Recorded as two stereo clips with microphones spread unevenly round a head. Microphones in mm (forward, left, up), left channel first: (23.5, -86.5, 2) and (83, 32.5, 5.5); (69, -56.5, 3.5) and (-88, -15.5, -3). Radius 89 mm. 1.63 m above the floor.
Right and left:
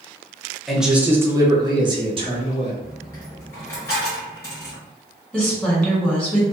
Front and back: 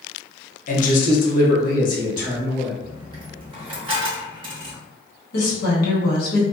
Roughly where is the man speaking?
Ahead right.